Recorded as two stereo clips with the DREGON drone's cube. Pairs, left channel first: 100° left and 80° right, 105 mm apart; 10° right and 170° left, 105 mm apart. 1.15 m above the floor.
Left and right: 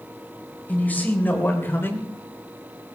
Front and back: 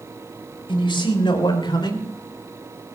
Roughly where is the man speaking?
Ahead left.